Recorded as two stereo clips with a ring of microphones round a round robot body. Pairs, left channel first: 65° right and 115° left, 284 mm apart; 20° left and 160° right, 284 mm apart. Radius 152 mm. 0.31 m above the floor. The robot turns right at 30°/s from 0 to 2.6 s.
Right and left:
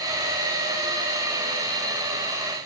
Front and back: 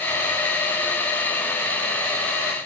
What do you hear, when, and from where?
Only background noise.